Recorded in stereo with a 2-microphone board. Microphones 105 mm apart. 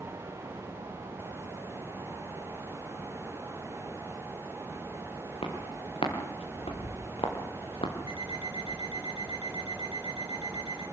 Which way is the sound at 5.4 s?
80° left.